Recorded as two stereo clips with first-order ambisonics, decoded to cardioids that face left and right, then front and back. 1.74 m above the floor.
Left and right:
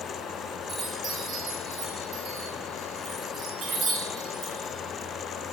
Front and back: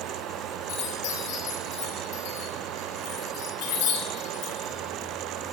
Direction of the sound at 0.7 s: 20° right.